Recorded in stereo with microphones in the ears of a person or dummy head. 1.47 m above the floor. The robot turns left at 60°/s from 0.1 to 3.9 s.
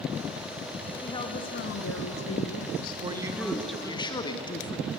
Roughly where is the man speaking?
Behind right.